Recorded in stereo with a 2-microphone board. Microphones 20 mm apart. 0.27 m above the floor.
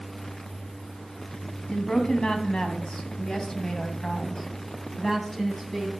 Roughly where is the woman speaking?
Left.